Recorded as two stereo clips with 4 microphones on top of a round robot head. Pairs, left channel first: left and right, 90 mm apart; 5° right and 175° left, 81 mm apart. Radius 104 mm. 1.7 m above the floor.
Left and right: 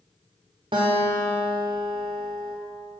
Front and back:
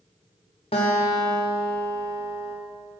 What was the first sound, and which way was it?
A guitar, 35° right.